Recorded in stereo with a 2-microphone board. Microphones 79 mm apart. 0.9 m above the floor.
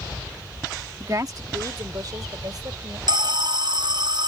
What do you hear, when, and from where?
1.0 s a woman speaking: 40° right (ahead or behind); by 3.0 s 55° right (ahead or behind)
3.1 s an alarm: 65° right (ahead or behind)